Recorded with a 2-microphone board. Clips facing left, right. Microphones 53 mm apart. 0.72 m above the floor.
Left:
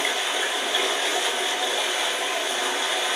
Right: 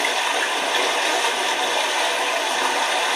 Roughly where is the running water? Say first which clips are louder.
Right 4 dB; right.